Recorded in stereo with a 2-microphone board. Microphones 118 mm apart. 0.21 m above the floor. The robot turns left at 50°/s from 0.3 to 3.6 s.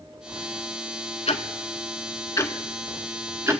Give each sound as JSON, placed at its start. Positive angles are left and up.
{"t": 1.3, "sound": "ticking", "side_deg": 70, "distance_m": 0.7}